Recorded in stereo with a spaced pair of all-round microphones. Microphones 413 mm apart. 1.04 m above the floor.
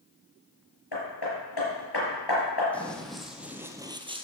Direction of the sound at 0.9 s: 65° left (ahead or behind).